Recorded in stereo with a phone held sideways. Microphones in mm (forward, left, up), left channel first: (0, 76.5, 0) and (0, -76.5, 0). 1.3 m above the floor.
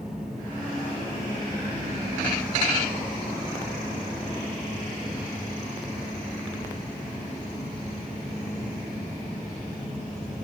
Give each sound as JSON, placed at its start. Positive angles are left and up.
{"t": 0.0, "sound": "a fan", "side_deg": -5, "distance_m": 1.5}